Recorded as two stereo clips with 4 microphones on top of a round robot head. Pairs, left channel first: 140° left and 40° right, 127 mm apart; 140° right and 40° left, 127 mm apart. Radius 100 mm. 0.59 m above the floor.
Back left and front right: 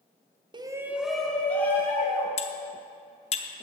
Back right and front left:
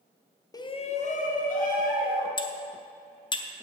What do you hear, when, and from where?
0.5 s a shout: 85° right, 0.9 m; by 2.3 s 150° right, 3 m
2.4 s cutlery clinking: 170° left, 0.8 m